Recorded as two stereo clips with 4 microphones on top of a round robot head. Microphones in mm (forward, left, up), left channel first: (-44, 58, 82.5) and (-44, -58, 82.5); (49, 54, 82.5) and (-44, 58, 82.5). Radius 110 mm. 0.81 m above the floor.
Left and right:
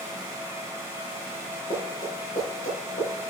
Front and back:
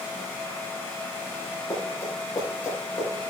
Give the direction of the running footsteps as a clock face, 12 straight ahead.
10 o'clock.